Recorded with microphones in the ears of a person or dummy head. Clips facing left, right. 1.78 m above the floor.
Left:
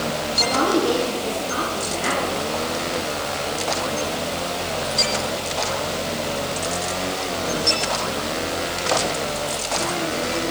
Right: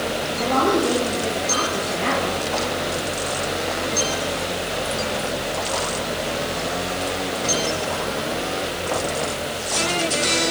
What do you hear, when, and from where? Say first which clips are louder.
0.4 s a woman speaking: right 1 dB; 80° right, 7.5 m